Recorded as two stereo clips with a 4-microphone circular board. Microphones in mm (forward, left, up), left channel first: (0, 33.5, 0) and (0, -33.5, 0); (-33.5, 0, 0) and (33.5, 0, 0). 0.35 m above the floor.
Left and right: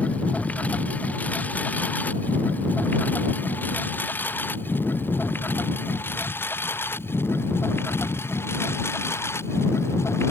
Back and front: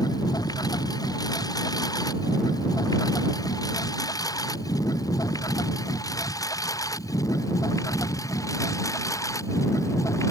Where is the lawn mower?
160° left; by 10.3 s 140° left.